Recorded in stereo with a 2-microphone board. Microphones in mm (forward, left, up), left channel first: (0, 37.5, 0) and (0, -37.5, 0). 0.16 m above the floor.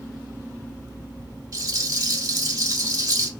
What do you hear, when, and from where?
1.5 s a rattle: 50° right (ahead or behind), 0.8 m